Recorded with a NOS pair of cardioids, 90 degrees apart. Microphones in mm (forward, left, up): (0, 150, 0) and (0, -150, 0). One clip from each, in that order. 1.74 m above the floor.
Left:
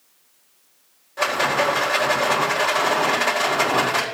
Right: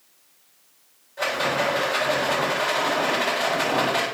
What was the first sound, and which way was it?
A rattle, 50° left.